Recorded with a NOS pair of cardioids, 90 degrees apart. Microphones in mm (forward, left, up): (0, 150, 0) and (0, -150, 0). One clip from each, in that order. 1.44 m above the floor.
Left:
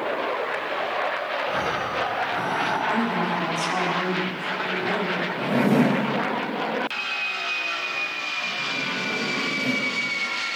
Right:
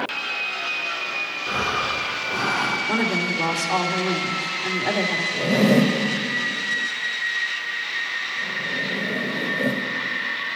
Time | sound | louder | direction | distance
1.5 | breathing | right 5 dB | 65° right | 3.5 m
2.9 | a woman speaking | right 1 dB | 65° right | 3 m
5.3 | a zipper | right 2 dB | 55° right | 2.5 m